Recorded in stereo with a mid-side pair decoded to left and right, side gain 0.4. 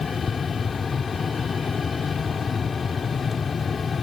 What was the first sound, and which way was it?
A fan, 45° left.